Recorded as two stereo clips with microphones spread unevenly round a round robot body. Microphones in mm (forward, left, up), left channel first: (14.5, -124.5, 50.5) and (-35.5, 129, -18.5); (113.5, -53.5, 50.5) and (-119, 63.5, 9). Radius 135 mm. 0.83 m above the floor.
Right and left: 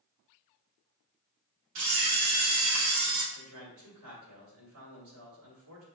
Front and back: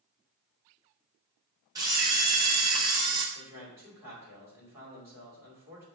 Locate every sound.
1.8 s a camera shutter: 75° left, 1.0 m
3.4 s a man speaking: 75° left, 2.5 m